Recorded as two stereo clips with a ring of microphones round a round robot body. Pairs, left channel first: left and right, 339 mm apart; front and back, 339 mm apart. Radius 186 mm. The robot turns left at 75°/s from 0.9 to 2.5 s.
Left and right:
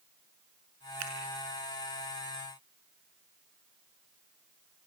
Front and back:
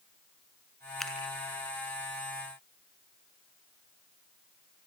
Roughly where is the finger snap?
Right.